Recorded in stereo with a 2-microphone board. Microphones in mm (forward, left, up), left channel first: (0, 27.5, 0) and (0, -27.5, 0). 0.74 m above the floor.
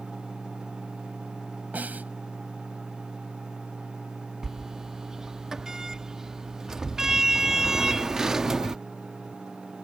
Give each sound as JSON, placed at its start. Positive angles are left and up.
{"t": 1.7, "sound": "a snare drum", "side_deg": -35}
{"t": 4.4, "sound": "a sliding door", "side_deg": -10}